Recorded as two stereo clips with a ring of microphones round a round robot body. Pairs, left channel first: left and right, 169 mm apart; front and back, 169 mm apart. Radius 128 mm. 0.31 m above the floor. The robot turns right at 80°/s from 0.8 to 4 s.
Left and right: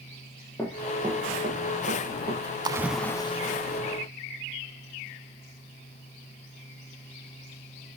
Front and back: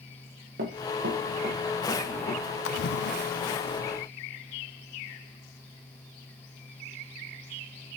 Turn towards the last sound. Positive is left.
turn(degrees=85)